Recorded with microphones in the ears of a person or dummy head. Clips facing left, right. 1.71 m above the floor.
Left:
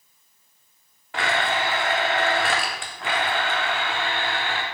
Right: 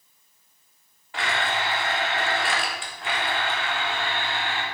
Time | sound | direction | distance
1.1 | a blender | 40° left (ahead or behind) | 0.8 m